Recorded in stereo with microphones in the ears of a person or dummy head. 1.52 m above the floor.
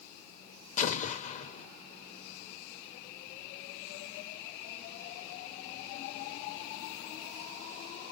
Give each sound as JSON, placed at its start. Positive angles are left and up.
{"t": 0.8, "sound": "an explosion", "side_deg": 45, "distance_m": 1.0}